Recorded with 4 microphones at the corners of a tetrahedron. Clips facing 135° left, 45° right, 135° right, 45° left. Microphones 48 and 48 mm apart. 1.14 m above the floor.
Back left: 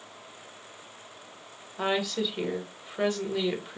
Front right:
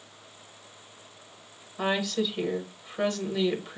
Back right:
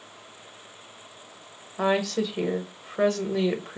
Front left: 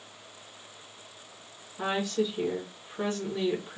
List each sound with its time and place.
1.8 s a woman speaking: 145° right, 1.0 m